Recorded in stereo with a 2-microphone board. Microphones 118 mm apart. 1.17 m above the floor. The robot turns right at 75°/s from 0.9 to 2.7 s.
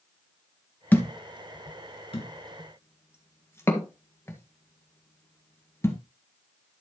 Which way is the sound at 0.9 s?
15° left (ahead or behind).